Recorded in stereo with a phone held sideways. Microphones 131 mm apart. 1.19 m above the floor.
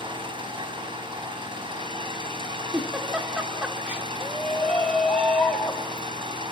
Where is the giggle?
10° right (ahead or behind), 2.5 m.